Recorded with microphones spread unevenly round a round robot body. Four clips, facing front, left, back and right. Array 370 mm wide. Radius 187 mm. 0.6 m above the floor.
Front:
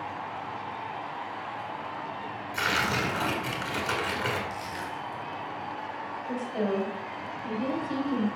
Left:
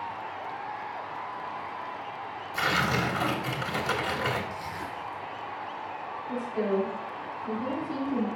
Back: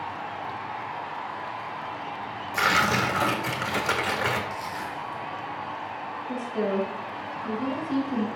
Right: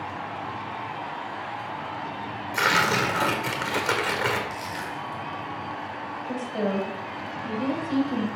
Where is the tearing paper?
120° right, 1.7 m.